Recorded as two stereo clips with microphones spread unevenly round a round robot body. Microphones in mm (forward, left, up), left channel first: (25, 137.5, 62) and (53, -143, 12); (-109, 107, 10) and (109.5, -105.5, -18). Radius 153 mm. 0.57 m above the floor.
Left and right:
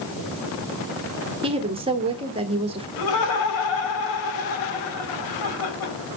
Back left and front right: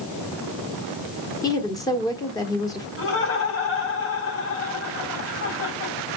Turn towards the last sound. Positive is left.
turn(degrees=85)